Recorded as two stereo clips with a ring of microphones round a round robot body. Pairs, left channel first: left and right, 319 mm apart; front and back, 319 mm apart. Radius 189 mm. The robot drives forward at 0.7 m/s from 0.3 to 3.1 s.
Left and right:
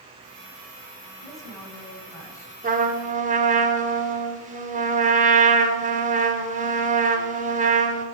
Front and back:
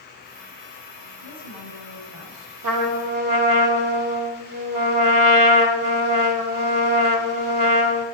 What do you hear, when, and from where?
1.2 s a woman speaking: 170° left, 8 m
2.6 s a trumpet: 155° right, 2.5 m